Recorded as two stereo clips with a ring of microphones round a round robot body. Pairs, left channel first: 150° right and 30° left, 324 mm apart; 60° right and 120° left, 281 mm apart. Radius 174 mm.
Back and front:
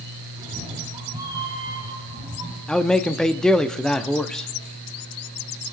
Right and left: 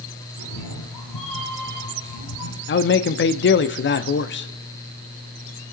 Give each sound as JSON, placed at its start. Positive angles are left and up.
{"t": 0.4, "sound": "a cat meowing", "azimuth_deg": -50, "distance_m": 2.0}
{"t": 2.7, "sound": "a man speaking", "azimuth_deg": -65, "distance_m": 0.9}